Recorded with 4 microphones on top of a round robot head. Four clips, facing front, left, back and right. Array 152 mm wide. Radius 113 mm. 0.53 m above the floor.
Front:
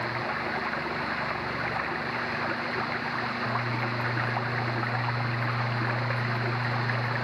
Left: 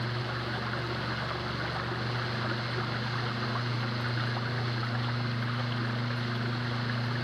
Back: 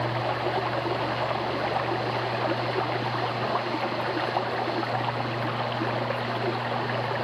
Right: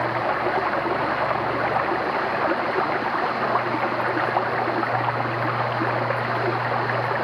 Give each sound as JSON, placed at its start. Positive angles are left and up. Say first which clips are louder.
{"t": 0.0, "sound": "running water", "louder": "right 13 dB, back 4 dB", "azimuth_deg": -110}